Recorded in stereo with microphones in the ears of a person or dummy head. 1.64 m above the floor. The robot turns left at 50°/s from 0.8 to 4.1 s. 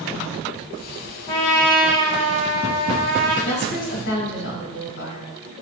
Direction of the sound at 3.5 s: 145° left.